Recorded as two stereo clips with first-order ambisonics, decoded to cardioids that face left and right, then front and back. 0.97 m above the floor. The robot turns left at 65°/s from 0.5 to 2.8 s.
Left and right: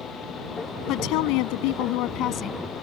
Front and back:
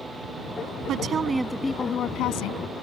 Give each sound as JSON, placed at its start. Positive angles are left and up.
{"t": 0.9, "sound": "a woman speaking", "azimuth_deg": 130}